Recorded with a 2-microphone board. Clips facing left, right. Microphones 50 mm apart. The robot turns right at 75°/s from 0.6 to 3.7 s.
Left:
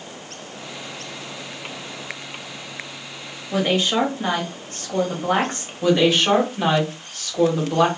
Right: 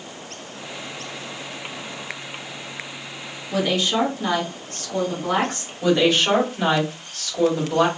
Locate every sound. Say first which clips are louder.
3.5 s a woman speaking: left 1 dB; 25° left (ahead or behind), 1.1 m; by 5.7 s 30° left (ahead or behind), 1.1 m
5.8 s a woman speaking: left 1 dB; 5° left (ahead or behind), 1.5 m